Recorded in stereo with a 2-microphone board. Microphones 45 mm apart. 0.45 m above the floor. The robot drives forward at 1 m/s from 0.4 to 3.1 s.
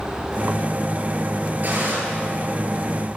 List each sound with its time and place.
1.6 s a gunshot: 40° right (ahead or behind), 9 m; by 1.9 s 45° right (ahead or behind), 8.5 m